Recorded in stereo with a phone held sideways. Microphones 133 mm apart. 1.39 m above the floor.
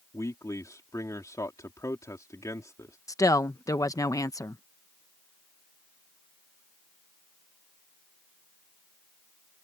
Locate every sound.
0.1 s a man speaking: 25° left (ahead or behind)
3.1 s a woman speaking: 25° left (ahead or behind)